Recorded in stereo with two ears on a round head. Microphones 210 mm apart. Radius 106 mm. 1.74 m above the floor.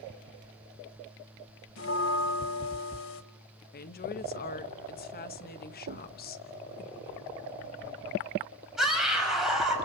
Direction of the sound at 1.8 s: 55° left (ahead or behind).